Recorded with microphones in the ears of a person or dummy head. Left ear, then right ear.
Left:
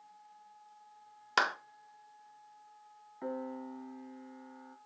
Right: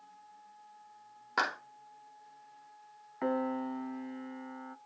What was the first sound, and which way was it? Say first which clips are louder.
A clap: left 2 dB; 65° left (ahead or behind).